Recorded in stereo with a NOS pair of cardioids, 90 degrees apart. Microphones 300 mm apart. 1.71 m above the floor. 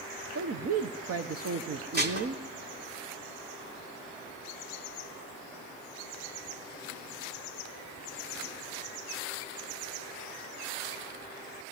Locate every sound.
0.3 s a woman speaking: 50° right, 1.3 m
1.9 s dishes clattering: 35° right, 3 m